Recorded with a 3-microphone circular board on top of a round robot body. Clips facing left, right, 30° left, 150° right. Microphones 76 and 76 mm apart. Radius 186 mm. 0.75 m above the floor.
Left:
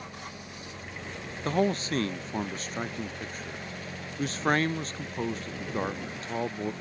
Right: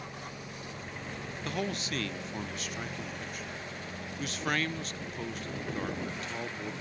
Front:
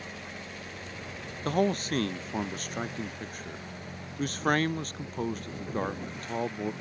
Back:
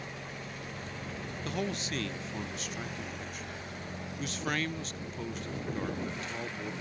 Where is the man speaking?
50° left.